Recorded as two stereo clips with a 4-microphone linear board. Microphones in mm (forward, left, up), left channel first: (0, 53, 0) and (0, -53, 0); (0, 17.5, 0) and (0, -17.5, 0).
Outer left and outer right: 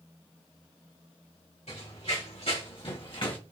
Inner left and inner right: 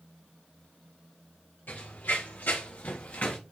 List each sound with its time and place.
1.7 s running footsteps: 75° left (ahead or behind), 3 m; by 3.4 s 50° left (ahead or behind), 1.9 m